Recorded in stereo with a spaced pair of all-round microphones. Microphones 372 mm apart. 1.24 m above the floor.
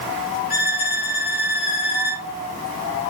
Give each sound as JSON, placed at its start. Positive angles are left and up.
{"t": 0.5, "sound": "a violin", "side_deg": 80, "distance_m": 3.0}